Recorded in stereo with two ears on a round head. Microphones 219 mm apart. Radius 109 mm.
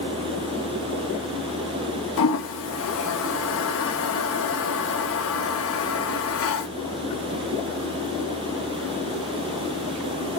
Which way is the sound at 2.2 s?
60° left (ahead or behind).